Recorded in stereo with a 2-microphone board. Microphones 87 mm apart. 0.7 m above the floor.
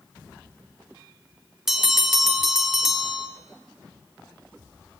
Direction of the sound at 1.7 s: 5° right (ahead or behind).